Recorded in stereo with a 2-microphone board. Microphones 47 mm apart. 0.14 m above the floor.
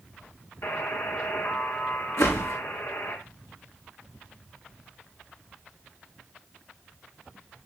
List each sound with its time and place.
0.6 s a buzzer: 60° left (ahead or behind), 3 m
2.2 s a whoosh: 75° left (ahead or behind), 5.5 m